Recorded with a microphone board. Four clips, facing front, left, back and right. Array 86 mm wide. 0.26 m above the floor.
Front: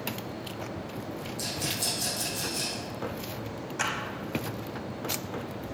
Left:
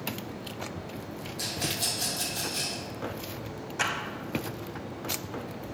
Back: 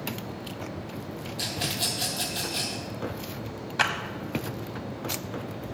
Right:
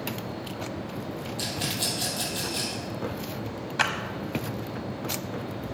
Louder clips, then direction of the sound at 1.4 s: Even, back 5 dB; 140° right.